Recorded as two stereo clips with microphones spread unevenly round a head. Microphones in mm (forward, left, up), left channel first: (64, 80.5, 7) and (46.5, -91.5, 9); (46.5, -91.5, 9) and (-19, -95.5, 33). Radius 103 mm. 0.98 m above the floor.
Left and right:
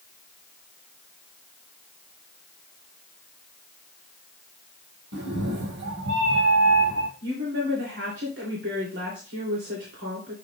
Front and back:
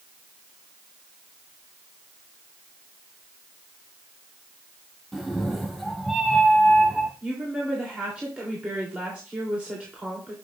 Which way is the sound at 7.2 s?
95° right.